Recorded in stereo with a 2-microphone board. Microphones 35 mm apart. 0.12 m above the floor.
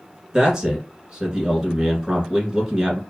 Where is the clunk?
No clunk in this recording.